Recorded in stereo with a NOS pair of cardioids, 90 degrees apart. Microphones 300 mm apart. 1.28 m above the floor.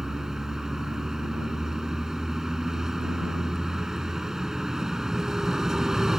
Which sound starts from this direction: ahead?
A vehicle, at 0.0 s.